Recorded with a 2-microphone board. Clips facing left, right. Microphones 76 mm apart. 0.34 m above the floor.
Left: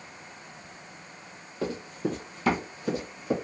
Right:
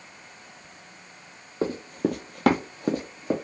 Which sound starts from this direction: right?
Running footsteps, at 1.6 s.